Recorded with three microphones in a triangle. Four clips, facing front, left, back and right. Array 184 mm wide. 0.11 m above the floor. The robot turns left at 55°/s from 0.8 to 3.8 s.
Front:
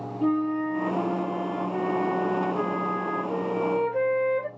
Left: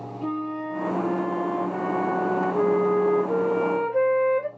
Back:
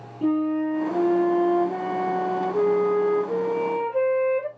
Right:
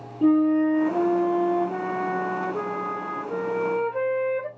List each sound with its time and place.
0.2 s a flute: 95° right, 1.3 m; by 4.5 s 100° left, 1.3 m